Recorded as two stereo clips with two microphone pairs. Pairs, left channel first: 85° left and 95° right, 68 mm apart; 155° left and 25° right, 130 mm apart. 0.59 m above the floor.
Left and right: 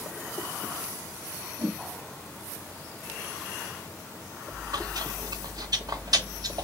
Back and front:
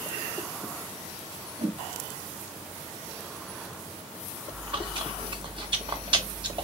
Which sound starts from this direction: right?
Chewing, at 4.5 s.